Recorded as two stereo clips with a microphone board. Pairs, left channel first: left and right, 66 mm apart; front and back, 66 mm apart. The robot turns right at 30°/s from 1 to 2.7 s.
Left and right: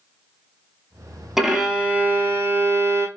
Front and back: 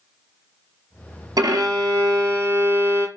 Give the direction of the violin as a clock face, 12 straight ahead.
6 o'clock.